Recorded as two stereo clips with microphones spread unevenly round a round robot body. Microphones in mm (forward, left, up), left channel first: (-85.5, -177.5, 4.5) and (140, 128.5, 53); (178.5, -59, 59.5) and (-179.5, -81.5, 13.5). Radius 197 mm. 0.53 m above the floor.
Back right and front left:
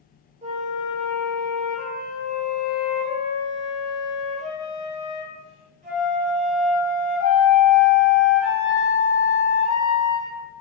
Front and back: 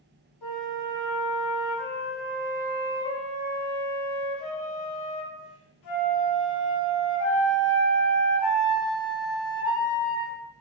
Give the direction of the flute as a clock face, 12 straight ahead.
1 o'clock.